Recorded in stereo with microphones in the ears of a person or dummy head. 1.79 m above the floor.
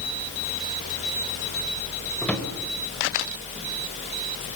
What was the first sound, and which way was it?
A drawer, 10° left (ahead or behind).